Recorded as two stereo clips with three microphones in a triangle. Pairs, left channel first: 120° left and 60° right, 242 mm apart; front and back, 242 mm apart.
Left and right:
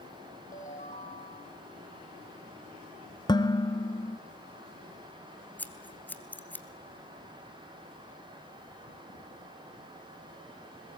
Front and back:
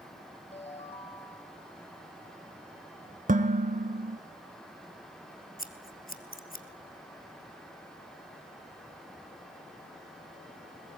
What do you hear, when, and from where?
0.5 s a ringtone: 65° left, 3.5 m
3.3 s dishes clattering: 175° left, 1.1 m
5.6 s scissors: 40° left, 1.7 m